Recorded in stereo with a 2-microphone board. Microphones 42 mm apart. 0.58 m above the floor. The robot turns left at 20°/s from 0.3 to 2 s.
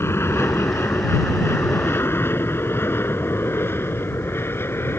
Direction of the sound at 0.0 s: 75° left (ahead or behind).